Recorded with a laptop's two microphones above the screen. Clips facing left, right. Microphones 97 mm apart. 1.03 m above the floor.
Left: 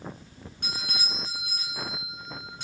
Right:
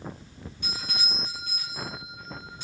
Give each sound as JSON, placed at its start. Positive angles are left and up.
{"t": 0.6, "sound": "a doorbell", "side_deg": 70, "distance_m": 1.9}